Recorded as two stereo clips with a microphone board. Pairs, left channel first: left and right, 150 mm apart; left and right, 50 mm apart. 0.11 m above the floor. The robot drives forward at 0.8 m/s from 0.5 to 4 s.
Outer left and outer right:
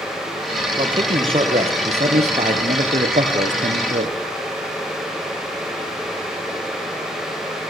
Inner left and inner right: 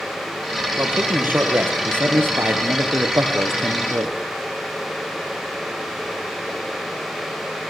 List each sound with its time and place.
0.8 s a man speaking: 35° right (ahead or behind), 3.5 m; by 4.2 s 55° right (ahead or behind), 2.5 m